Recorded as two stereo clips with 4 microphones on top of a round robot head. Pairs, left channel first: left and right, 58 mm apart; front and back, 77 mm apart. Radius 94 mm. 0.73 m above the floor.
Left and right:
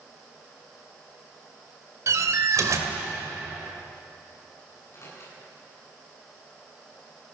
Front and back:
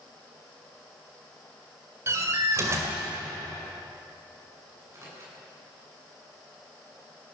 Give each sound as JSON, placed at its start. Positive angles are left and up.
{"t": 2.1, "sound": "a door slam", "azimuth_deg": -120, "distance_m": 2.0}
{"t": 4.7, "sound": "a microwave", "azimuth_deg": 130, "distance_m": 9.0}